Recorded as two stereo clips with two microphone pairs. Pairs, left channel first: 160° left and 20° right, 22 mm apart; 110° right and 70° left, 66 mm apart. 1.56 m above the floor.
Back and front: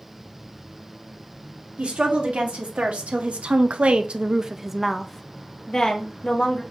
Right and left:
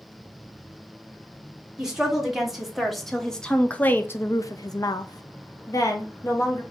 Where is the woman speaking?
15° right, 1.7 m; by 6.6 s 150° right, 1.3 m.